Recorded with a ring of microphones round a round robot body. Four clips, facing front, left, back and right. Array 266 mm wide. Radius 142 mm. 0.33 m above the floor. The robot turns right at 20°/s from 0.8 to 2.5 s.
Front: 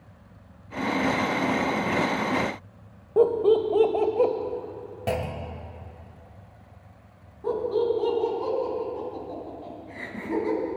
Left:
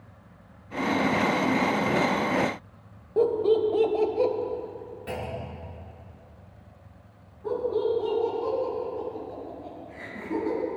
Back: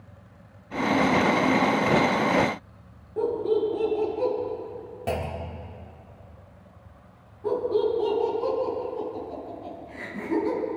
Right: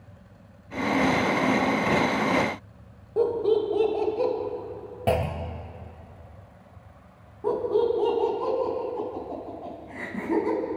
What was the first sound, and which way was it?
Laughter, 15° left.